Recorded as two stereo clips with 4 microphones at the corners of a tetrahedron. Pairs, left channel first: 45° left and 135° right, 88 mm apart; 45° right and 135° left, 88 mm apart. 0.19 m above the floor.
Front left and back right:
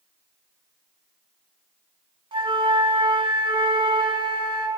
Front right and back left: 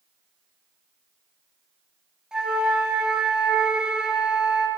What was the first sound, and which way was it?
A flute, 145° right.